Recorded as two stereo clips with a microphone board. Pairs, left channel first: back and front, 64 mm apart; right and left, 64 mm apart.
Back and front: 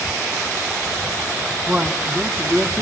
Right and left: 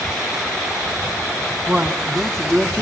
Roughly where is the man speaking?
Ahead left.